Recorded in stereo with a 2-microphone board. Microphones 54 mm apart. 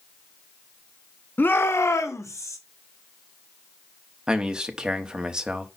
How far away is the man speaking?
About 1.0 m.